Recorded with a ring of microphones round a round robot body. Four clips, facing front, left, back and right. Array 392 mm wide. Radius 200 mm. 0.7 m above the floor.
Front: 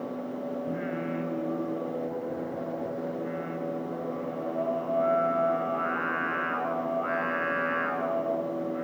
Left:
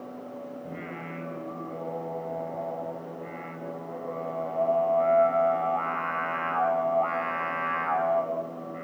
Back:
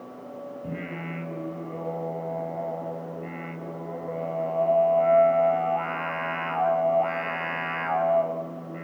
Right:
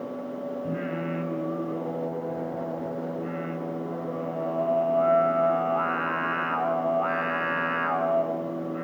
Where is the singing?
150° right, 4.5 m.